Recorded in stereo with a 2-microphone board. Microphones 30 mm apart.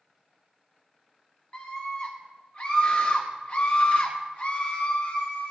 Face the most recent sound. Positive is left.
turn(degrees=55)  # may be behind; listen again after turning